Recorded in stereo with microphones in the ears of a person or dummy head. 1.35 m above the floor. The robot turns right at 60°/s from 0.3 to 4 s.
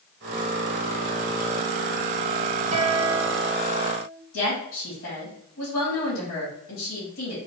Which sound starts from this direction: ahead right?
A guitar, at 2.7 s.